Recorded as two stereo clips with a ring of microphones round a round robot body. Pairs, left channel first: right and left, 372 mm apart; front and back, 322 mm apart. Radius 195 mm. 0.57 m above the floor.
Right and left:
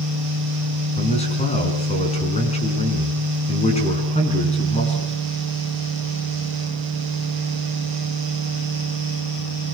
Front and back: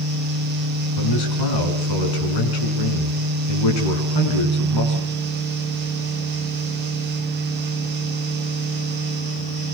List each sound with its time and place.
1.0 s a man speaking: 15° right, 7.5 m